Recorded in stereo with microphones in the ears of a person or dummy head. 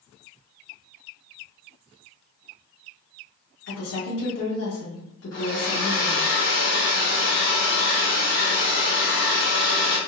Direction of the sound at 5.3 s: 80° left.